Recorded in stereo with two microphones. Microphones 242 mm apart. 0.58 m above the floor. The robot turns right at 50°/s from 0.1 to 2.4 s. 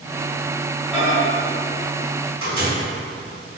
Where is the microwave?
5° right (ahead or behind), 1.8 m; by 2.7 s 70° right (ahead or behind), 1.8 m.